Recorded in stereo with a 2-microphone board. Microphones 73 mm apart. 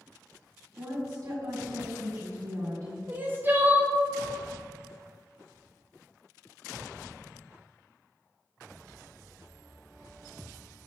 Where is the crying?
25° right (ahead or behind), 0.7 m.